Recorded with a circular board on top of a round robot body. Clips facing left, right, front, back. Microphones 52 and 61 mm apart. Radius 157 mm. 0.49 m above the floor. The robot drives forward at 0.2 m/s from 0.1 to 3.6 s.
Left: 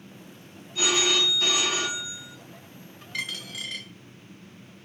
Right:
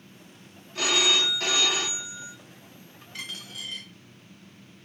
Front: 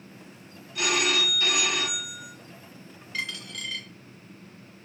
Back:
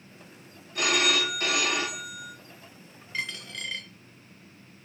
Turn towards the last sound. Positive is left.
turn(degrees=120)